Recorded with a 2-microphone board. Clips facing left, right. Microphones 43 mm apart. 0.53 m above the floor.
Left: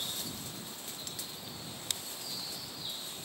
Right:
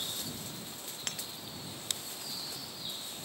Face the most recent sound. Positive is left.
turn(degrees=-60)  # may be behind; listen again after turning